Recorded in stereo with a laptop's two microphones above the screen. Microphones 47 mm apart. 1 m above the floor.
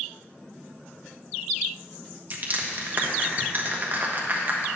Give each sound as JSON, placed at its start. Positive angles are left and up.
{"t": 2.3, "sound": "crushing", "side_deg": -40, "distance_m": 1.0}